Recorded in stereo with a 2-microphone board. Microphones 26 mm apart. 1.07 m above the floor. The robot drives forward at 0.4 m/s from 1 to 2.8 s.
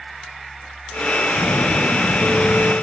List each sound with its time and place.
1.3 s an explosion: 85° right, 9 m; by 2.7 s 80° right, 9 m